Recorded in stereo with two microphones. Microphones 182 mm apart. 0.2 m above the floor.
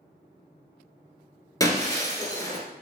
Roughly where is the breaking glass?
Left.